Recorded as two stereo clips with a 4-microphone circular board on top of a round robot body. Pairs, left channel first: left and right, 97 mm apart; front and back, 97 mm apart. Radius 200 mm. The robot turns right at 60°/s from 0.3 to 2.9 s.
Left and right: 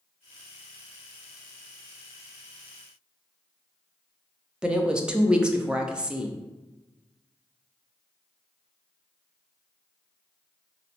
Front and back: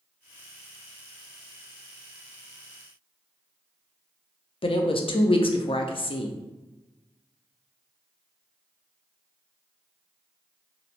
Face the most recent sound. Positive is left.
turn(degrees=-10)